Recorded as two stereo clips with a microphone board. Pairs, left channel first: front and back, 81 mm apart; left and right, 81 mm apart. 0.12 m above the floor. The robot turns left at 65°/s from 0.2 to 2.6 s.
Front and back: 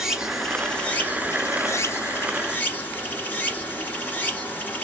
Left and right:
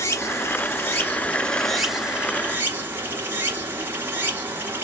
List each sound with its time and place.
0.0 s running water: 100° left, 1.0 m; by 4.8 s 55° right, 1.0 m